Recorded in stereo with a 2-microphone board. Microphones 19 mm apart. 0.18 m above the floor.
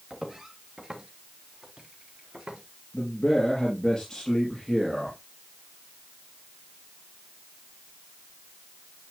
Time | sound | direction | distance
0.1 | footsteps | 15° right (ahead or behind) | 2.5 m
2.9 | a man speaking | 40° left (ahead or behind) | 3.5 m